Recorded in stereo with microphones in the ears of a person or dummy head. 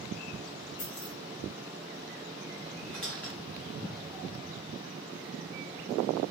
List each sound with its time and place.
0.8 s keys jangling: 35° left (ahead or behind), 0.6 m
2.9 s a squeak: 10° left (ahead or behind), 0.9 m